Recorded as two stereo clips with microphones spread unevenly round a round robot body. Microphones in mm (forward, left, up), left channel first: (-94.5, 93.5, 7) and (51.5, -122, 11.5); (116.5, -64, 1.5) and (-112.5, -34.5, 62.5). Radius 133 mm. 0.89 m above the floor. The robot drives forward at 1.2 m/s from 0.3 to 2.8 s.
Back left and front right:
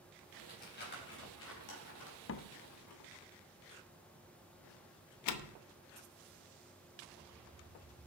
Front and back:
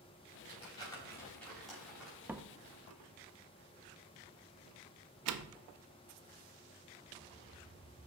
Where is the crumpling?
60° left, 4 m; by 2.2 s 90° left, 3.5 m.